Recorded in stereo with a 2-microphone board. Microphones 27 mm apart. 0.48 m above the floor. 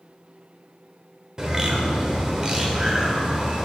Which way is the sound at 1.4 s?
25° right (ahead or behind).